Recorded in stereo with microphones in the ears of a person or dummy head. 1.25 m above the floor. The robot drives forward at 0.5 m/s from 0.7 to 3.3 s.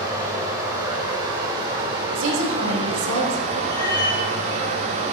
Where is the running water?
25° right (ahead or behind), 2.5 m; by 5.1 s 45° right (ahead or behind), 1.4 m.